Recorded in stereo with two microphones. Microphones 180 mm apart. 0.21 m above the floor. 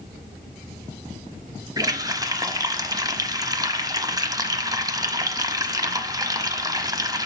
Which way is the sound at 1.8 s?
20° right (ahead or behind).